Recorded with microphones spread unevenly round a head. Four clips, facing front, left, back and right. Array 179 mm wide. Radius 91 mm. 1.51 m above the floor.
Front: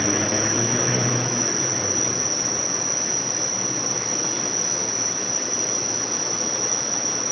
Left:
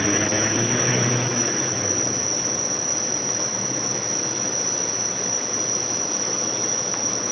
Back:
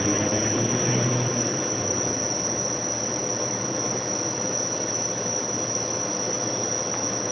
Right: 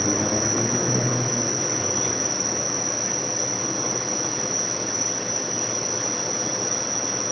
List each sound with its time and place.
0.0 s an insect: 135° right, 1.9 m